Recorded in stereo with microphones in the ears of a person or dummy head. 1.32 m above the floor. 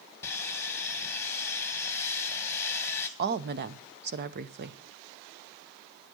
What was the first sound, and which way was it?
Sawing, 15° left (ahead or behind).